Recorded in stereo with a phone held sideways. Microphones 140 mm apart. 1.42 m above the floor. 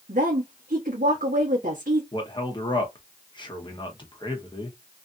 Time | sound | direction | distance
0.1 | a woman speaking | 85° right | 1.2 m
2.1 | a man speaking | 35° left (ahead or behind) | 1.1 m